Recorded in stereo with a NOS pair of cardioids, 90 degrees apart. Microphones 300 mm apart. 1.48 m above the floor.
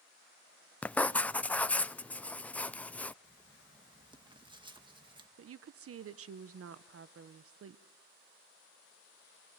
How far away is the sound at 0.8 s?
About 0.5 m.